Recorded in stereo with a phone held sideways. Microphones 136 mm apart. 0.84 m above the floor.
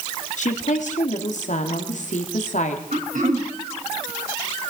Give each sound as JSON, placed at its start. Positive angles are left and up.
{"t": 0.4, "sound": "a woman speaking", "side_deg": 65, "distance_m": 2.0}
{"t": 2.9, "sound": "throat clearing", "side_deg": -75, "distance_m": 4.0}